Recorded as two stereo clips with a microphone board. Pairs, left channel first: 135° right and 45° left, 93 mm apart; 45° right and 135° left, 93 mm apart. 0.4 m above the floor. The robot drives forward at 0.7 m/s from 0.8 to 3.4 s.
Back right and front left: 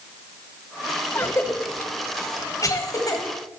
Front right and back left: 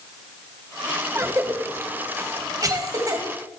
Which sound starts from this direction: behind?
A cough, at 1.1 s.